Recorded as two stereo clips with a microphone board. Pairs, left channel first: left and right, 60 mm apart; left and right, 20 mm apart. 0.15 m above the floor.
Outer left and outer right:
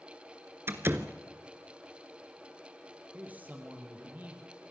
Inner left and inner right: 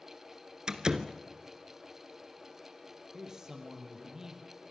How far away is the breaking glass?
I don't hear breaking glass.